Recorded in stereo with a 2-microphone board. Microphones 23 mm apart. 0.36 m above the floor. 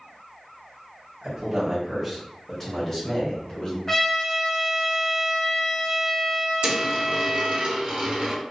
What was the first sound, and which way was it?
A man speaking, 30° right (ahead or behind).